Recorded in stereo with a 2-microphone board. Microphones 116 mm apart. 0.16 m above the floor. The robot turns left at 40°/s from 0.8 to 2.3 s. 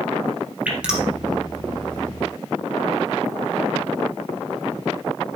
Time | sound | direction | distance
0.7 | dripping | 10° right (ahead or behind) | 3.5 m